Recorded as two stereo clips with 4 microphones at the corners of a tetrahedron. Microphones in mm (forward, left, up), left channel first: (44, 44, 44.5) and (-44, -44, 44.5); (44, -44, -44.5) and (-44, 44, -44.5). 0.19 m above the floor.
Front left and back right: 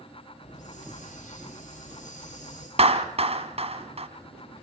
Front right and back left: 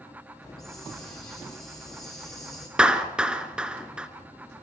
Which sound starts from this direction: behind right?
A clap, at 2.8 s.